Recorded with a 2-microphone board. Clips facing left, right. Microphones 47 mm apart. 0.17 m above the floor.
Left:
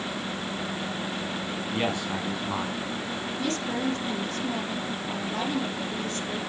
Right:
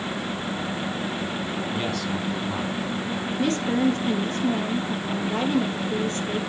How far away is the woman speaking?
About 3.5 m.